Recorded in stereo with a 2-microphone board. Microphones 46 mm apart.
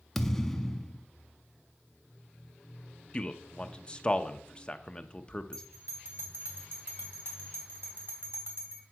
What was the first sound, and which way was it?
A thud, 10° left (ahead or behind).